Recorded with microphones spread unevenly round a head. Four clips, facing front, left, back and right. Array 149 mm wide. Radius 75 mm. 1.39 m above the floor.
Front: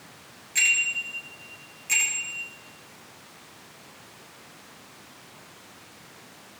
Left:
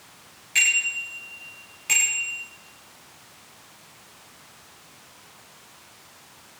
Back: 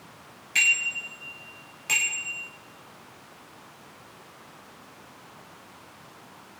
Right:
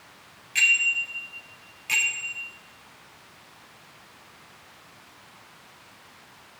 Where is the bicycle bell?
160° left, 6 m.